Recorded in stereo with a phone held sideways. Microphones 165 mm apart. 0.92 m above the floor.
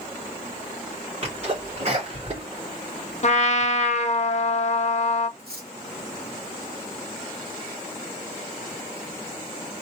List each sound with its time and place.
1.2 s a sneeze: 45° right (ahead or behind), 2.5 m
3.2 s a trumpet: 45° left (ahead or behind), 0.6 m
5.4 s cutlery clinking: 85° right, 1.6 m